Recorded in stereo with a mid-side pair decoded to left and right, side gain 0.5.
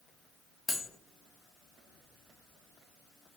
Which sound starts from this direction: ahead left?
Cutlery clinking, at 0.7 s.